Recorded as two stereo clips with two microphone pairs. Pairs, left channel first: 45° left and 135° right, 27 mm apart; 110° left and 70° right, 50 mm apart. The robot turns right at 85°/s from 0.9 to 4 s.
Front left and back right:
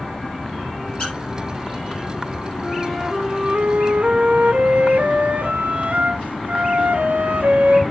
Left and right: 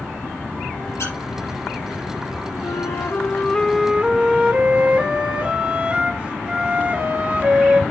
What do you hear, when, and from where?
1.0 s a squeak: 90° left, 4.5 m; by 1.1 s 105° left, 4.5 m
2.6 s a flute: 110° left, 0.9 m; by 7.8 s 135° right, 0.9 m